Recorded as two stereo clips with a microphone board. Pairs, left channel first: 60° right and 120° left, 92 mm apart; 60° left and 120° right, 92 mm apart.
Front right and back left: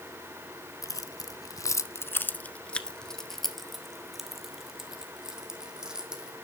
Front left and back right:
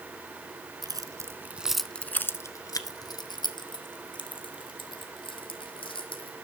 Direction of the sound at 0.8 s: 95° right.